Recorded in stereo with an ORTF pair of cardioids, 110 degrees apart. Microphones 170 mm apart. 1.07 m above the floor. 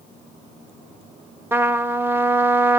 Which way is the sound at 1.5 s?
15° right.